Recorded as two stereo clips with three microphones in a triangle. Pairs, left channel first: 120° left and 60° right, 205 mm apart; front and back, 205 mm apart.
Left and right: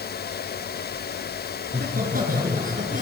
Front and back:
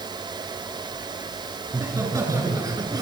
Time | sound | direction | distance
1.6 | laughter | 105° right | 9.5 m